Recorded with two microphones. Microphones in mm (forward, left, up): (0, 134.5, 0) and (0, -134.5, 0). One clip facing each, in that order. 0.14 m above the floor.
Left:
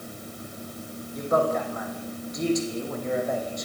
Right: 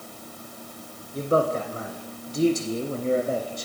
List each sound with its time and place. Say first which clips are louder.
1.1 s a man speaking: right 1 dB; 35° right (ahead or behind), 6.5 m